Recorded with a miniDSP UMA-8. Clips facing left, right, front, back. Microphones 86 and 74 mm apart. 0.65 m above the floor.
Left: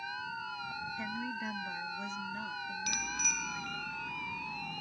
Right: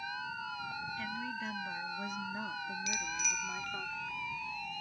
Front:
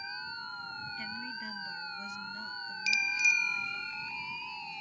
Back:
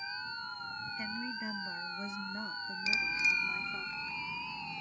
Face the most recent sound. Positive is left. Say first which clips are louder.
# even, front 3 dB
turn(degrees=125)